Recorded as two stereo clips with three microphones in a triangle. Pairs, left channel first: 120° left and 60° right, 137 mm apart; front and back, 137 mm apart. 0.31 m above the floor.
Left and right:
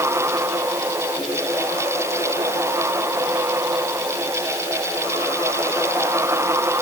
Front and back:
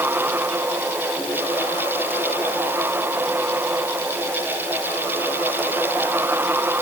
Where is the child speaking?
No child speaking in this recording.